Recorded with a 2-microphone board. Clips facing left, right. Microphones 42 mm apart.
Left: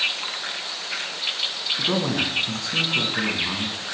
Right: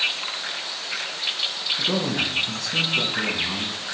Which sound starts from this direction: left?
A man speaking, at 1.8 s.